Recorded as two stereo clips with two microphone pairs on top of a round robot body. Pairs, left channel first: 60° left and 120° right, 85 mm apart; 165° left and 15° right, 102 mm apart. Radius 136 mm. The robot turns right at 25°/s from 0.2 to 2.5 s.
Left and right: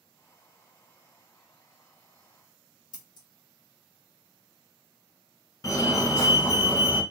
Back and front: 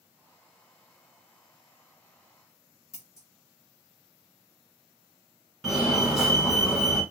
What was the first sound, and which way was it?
Scissors, 100° left.